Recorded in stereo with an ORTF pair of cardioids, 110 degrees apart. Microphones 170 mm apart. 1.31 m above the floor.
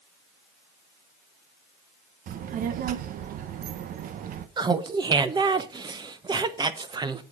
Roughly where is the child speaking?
Ahead right.